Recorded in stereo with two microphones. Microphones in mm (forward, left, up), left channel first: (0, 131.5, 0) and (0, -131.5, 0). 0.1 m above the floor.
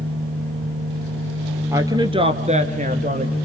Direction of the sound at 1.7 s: 10° right (ahead or behind).